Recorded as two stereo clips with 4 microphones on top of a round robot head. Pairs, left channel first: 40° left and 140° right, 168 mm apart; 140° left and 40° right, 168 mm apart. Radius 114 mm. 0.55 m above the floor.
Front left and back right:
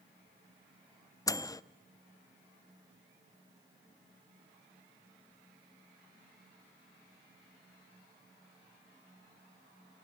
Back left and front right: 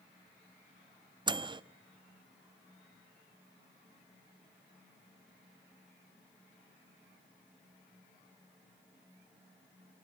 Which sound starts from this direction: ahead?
A microwave, at 1.3 s.